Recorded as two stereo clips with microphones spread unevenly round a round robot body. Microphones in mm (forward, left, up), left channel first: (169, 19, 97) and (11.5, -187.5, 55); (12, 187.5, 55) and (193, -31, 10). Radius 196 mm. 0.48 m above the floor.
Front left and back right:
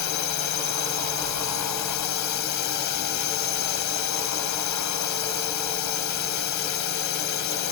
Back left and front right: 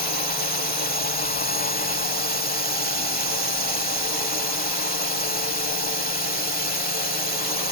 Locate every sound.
0.0 s a drone: 70° left